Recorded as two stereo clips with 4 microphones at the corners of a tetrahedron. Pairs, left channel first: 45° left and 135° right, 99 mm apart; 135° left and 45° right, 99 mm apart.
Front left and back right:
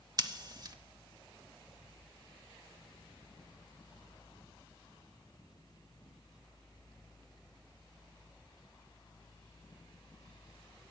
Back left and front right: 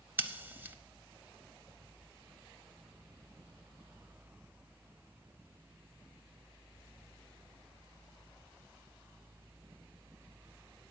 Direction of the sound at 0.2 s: 105° right.